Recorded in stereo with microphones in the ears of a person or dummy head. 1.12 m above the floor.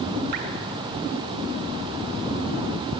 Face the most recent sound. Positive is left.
turn(degrees=-50)  # may be behind; listen again after turning